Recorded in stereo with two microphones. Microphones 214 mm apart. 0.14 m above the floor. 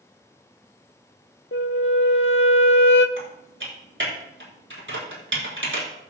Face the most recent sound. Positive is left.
turn(degrees=-65)  # may be behind; listen again after turning